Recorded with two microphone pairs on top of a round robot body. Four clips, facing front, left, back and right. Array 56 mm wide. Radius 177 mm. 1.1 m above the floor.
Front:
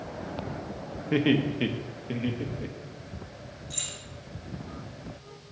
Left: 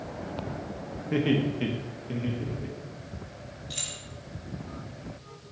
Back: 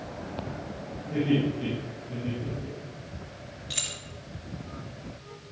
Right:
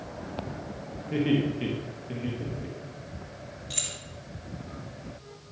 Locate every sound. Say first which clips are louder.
1.1 s laughter: even, front 1 dB; 15° left, 1.6 m; by 3.2 s 5° right, 2.5 m
3.7 s keys jangling: right 1 dB, back 5 dB; 160° right, 1.7 m